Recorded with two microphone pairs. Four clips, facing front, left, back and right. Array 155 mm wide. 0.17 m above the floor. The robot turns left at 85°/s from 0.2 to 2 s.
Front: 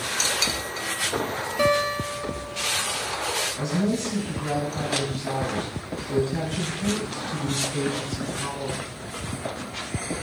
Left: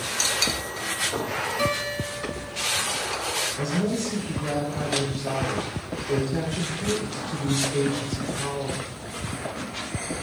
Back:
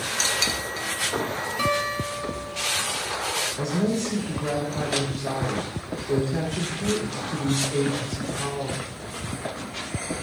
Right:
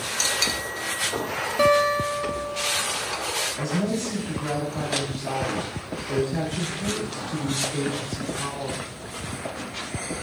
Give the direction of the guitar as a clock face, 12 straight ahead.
3 o'clock.